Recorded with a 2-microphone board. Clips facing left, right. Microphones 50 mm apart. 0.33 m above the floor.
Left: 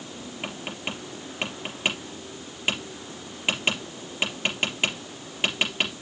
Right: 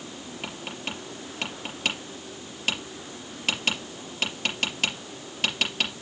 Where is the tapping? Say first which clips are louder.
Left 2 dB; 20° left (ahead or behind), 3.5 m.